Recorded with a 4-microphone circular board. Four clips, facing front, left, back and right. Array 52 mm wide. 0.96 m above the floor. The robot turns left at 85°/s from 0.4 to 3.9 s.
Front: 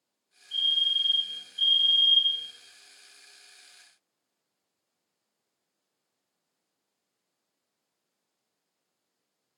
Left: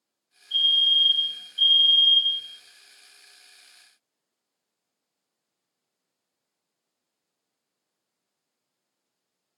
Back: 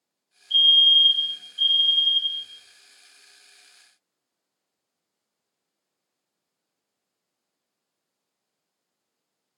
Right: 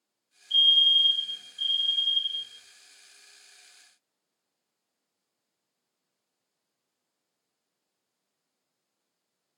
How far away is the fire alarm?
About 4.5 m.